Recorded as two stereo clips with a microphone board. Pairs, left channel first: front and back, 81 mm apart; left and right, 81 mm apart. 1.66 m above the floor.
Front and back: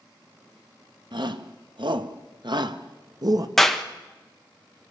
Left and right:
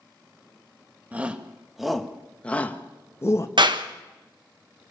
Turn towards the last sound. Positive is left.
turn(degrees=-85)